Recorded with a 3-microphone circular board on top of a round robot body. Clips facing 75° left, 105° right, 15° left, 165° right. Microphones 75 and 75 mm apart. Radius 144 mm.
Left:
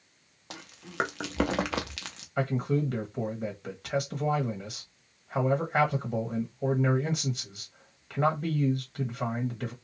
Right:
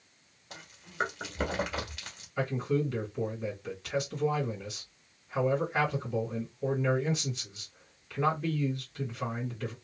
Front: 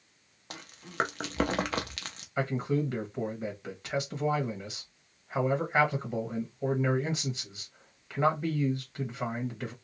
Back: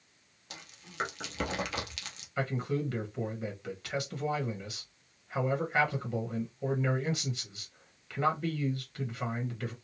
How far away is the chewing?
About 0.7 m.